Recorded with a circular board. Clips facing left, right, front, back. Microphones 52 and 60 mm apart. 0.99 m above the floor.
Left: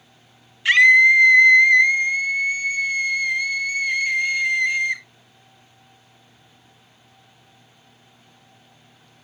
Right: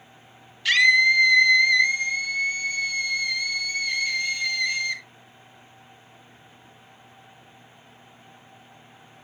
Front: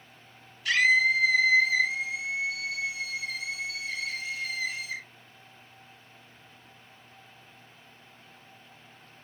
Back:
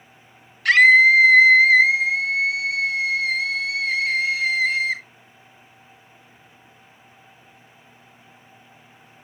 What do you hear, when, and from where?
0.7 s a scream: 150° left, 0.7 m